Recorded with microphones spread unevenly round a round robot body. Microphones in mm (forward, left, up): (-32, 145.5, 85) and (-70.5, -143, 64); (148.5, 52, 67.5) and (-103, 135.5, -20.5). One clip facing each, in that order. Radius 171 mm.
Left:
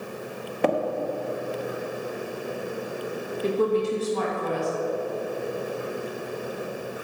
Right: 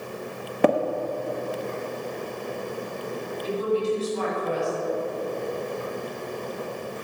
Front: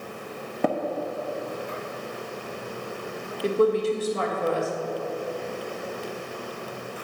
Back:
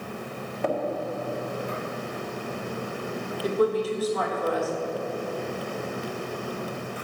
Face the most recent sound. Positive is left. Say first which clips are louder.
# left 2 dB, front 3 dB
turn(degrees=50)